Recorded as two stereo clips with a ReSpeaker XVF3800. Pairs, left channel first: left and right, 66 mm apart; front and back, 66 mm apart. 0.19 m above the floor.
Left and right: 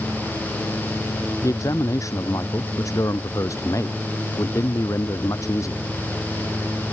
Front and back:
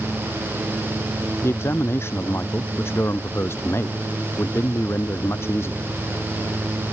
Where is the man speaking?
50° left.